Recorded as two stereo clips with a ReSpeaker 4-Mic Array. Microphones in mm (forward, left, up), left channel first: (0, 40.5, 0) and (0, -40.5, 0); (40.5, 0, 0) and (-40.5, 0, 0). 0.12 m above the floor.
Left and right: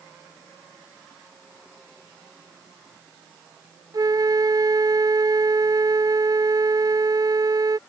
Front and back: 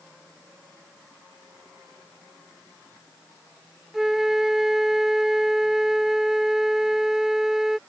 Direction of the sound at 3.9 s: 95° right.